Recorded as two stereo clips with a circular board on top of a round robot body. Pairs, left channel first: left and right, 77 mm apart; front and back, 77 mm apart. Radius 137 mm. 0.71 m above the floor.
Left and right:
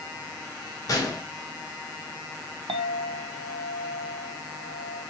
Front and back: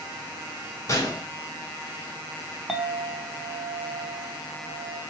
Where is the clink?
95° right, 0.5 m.